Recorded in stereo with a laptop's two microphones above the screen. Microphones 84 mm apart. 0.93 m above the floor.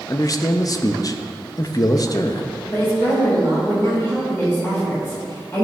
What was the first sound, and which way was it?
A man speaking, 45° left (ahead or behind).